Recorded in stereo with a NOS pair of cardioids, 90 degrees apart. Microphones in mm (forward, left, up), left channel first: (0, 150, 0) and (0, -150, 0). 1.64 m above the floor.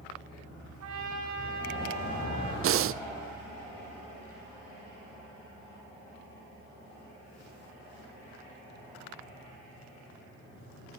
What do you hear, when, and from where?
0.8 s a trumpet: 65° right, 4 m
2.6 s breathing: 45° right, 0.5 m